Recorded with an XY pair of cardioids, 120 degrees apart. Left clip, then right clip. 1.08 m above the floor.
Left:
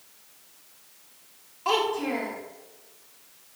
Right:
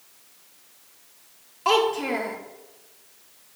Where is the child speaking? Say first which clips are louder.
Right 4 dB; 30° right, 1.3 m.